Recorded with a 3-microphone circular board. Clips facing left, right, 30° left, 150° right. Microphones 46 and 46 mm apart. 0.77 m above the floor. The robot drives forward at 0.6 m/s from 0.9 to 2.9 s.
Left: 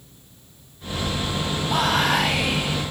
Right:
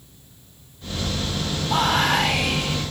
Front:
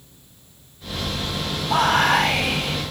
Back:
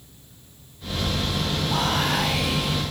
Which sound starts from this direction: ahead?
Whispering, at 1.7 s.